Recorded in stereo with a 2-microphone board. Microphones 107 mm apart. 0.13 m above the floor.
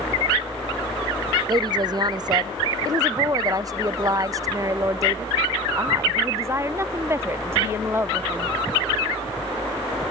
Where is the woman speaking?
45° right (ahead or behind); by 8.5 s 20° right (ahead or behind).